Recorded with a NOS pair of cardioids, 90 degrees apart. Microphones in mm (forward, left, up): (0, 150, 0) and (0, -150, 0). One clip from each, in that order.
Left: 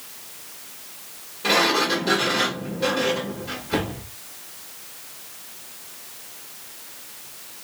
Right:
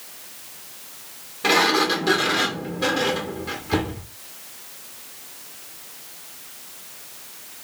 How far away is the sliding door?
About 1.5 m.